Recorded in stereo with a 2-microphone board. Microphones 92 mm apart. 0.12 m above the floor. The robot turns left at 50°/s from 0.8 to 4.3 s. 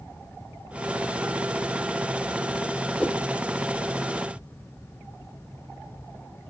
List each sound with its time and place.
3.0 s a whoosh: 10° left (ahead or behind), 2.5 m; by 3.3 s 20° left (ahead or behind), 2.5 m